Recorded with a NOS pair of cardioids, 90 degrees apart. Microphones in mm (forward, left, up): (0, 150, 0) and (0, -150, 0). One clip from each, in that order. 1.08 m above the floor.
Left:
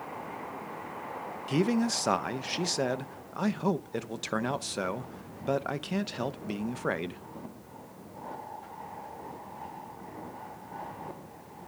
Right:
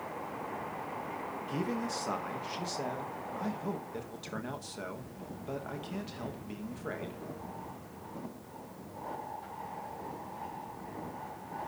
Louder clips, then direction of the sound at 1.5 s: Left 8 dB; 60° left.